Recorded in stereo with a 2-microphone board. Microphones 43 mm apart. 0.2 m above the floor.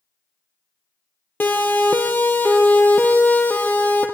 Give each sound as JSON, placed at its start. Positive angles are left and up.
{"t": 1.4, "sound": "a siren", "side_deg": 50, "distance_m": 4.5}